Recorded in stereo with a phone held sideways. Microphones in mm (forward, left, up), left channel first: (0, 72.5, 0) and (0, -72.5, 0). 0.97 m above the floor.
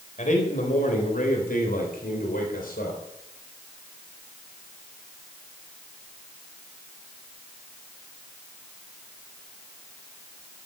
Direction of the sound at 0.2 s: 60° left (ahead or behind).